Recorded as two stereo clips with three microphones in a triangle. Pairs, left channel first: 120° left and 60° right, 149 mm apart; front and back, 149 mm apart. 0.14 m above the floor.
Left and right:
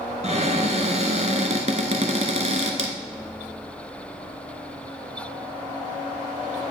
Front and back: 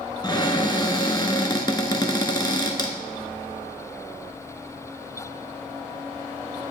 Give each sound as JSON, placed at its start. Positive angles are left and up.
{"t": 0.2, "sound": "a cupboard door", "azimuth_deg": -50, "distance_m": 0.9}